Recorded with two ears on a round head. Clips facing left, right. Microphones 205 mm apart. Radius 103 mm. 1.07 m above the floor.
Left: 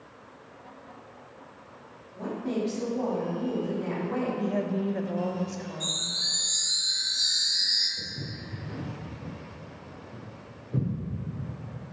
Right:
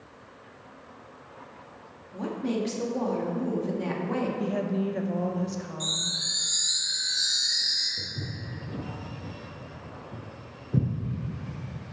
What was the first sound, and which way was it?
A woman speaking, 75° right (ahead or behind).